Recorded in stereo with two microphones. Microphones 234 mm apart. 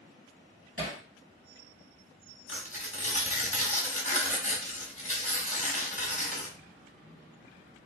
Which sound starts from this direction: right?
Hammering, at 0.8 s.